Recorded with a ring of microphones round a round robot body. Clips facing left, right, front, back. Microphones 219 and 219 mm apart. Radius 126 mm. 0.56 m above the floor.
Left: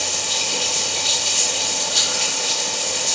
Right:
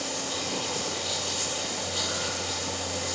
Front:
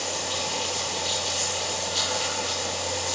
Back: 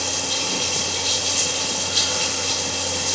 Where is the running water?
120° left, 3 m.